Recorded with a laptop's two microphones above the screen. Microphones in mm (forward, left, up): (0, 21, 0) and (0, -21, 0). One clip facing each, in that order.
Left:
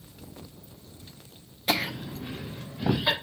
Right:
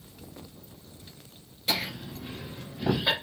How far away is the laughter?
About 0.5 m.